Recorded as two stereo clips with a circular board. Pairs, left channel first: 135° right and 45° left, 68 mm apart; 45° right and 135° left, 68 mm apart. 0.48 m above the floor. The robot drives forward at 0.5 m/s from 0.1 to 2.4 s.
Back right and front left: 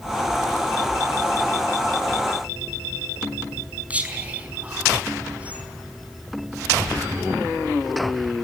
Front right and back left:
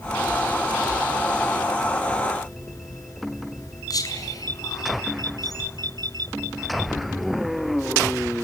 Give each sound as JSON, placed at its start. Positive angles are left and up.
{"t": 3.9, "sound": "whispering", "azimuth_deg": -25, "distance_m": 4.5}